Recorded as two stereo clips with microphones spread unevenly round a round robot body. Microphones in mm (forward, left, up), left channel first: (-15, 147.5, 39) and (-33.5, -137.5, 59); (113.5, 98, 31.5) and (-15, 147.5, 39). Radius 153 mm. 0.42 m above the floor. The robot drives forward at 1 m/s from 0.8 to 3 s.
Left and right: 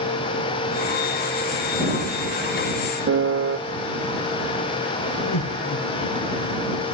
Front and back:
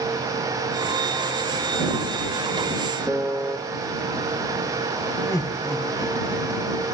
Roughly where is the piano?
Behind right.